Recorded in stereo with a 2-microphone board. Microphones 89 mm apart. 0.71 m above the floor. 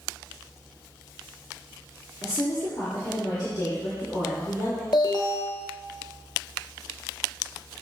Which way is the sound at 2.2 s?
45° left (ahead or behind).